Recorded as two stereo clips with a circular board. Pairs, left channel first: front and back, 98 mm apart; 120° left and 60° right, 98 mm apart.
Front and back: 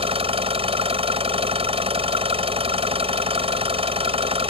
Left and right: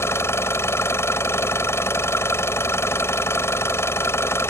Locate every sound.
0.0 s an engine running: straight behind